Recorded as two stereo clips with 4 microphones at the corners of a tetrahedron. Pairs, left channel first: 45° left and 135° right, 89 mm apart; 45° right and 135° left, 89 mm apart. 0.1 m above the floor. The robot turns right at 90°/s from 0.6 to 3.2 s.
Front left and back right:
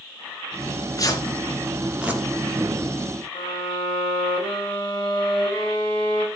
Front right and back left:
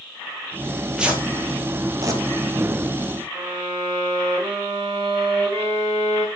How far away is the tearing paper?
About 2.5 m.